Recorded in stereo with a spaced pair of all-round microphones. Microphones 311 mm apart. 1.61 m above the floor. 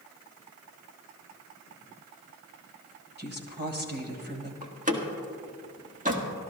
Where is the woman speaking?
35° right (ahead or behind), 2 m.